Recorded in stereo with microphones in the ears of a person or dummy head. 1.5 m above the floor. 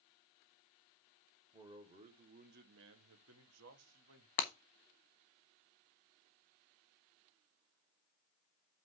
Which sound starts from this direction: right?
A man speaking, at 1.5 s.